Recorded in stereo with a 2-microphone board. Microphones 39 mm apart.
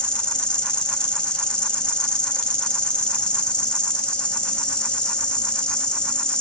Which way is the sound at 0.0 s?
25° left (ahead or behind).